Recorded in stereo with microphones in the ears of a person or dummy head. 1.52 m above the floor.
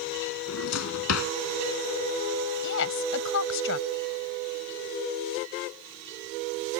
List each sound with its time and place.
0.5 s a drawer: 85° left
2.6 s a woman speaking: 65° left (ahead or behind)